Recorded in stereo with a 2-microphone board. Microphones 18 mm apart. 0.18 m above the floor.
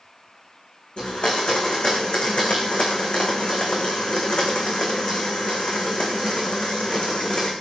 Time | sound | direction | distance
1.0 | a blender | 70° left (ahead or behind) | 3.5 m